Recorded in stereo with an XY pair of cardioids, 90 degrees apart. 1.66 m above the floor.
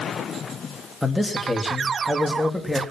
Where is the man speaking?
5° left, 2.5 m.